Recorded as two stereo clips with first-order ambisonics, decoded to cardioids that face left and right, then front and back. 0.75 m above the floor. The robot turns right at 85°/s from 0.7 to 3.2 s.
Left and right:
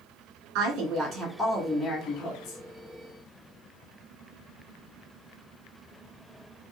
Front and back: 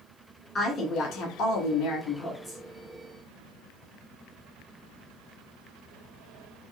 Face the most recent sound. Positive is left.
turn(degrees=140)